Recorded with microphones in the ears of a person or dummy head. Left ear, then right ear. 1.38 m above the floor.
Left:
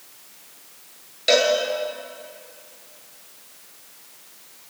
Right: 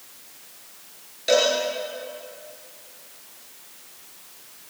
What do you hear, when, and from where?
1.3 s a cowbell: 25° left (ahead or behind), 5 m